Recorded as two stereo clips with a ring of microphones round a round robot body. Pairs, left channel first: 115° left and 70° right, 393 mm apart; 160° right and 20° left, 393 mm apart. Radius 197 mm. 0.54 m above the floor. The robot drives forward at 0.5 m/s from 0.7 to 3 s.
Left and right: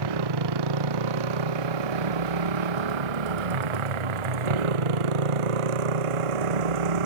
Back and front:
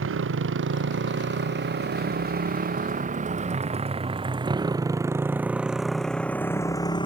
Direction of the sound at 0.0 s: 40° right.